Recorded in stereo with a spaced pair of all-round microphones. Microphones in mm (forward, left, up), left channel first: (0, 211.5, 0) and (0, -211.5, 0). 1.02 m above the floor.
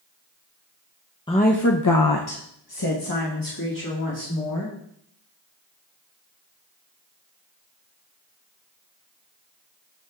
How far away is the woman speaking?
About 0.8 m.